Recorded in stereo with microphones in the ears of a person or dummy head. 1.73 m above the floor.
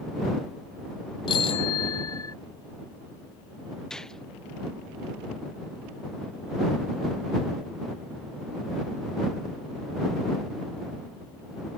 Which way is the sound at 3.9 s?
5° left (ahead or behind).